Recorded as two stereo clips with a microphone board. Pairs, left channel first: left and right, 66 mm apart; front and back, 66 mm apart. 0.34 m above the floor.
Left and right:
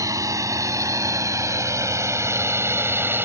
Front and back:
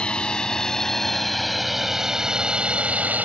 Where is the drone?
75° right; by 3.3 s 125° right.